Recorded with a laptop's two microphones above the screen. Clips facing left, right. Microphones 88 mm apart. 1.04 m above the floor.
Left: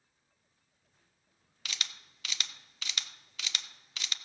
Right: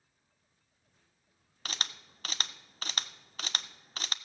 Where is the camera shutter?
40° right (ahead or behind), 0.5 m.